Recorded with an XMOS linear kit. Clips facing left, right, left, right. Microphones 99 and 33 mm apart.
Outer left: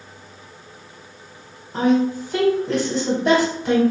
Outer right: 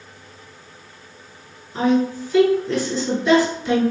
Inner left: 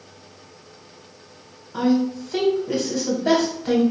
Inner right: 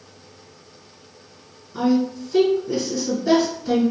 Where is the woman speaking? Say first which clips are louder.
Outer left 1 dB, even; 55° left (ahead or behind), 1.2 m.